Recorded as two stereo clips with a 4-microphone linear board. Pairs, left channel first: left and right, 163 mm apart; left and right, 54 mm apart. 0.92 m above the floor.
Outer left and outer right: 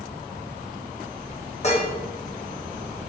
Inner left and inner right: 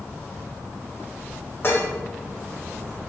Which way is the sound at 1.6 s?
45° left (ahead or behind).